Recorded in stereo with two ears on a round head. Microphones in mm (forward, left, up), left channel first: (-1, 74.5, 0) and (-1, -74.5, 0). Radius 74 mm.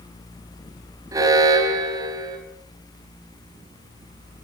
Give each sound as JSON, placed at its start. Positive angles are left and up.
{"t": 1.1, "sound": "an alarm", "side_deg": -20, "distance_m": 4.5}